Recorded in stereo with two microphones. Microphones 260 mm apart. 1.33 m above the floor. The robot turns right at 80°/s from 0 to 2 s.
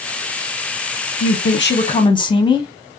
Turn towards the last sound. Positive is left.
turn(degrees=160)